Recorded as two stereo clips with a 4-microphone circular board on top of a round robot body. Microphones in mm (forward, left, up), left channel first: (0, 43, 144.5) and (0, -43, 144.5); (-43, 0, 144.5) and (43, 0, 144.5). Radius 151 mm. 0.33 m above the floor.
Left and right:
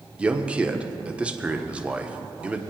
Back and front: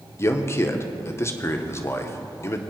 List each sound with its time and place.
0.2 s a man speaking: 155° right, 1.1 m